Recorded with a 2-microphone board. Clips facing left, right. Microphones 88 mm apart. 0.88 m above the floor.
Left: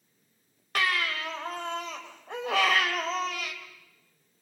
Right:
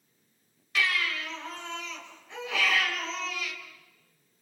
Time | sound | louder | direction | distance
0.8 | a baby crying | left 1 dB | 50° left (ahead or behind) | 2.5 m